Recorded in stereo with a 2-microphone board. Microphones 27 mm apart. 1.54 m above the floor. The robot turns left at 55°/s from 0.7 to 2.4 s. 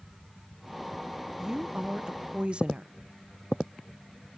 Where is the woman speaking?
40° right, 0.5 m; by 2.9 s 95° right, 0.5 m.